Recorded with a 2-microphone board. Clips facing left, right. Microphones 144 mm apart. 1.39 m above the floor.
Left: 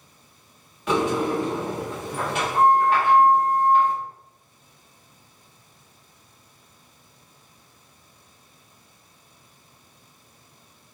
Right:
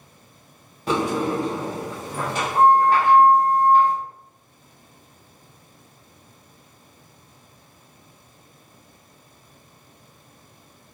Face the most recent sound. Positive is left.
turn(degrees=-35)  # may be behind; listen again after turning